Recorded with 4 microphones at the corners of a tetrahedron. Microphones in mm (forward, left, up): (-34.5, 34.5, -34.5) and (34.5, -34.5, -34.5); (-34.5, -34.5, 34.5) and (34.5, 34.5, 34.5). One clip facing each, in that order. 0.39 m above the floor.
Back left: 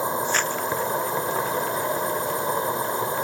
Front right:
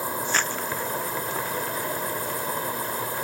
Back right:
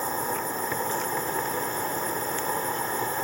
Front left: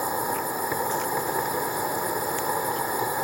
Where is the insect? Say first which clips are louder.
Back left 3 dB, front left 2 dB; 110° left.